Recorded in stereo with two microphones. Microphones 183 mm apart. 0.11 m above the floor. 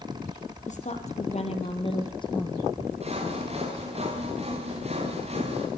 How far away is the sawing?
About 6.5 m.